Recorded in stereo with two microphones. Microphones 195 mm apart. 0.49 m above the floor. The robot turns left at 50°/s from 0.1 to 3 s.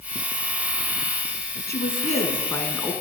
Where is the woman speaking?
55° left, 4.5 m; by 2.9 s 5° right, 4.5 m.